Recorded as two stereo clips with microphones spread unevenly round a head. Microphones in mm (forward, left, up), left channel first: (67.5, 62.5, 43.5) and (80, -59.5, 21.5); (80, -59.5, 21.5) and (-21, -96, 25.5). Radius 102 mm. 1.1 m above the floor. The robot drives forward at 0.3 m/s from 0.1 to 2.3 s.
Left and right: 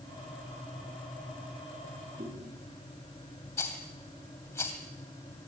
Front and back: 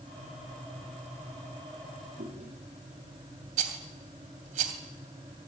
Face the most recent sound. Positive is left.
turn(degrees=170)